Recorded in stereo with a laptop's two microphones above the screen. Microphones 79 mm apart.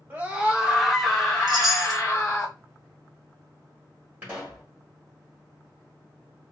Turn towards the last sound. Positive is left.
turn(degrees=-25)  # may be behind; listen again after turning